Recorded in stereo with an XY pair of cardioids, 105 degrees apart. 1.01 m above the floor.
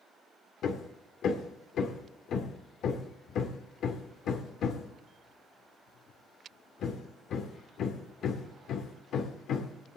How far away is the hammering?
About 1.6 m.